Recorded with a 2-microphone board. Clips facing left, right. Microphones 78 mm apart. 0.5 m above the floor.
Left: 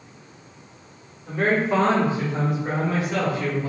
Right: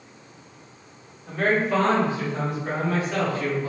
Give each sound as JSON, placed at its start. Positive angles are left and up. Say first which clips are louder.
{"t": 1.3, "sound": "a man speaking", "louder": "left 1 dB", "side_deg": 20, "distance_m": 1.0}